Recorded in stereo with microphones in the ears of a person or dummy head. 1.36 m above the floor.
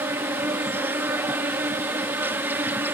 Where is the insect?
5° right (ahead or behind).